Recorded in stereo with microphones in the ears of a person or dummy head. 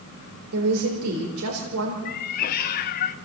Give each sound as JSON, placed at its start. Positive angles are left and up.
{"t": 0.5, "sound": "a woman speaking", "side_deg": -90, "distance_m": 3.5}
{"t": 2.0, "sound": "a cat meowing", "side_deg": 45, "distance_m": 0.8}